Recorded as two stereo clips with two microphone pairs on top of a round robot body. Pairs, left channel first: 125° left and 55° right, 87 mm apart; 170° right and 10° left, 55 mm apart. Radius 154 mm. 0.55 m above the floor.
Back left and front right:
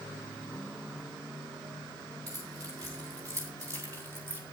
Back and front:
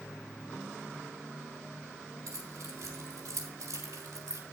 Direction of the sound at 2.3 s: 5° right.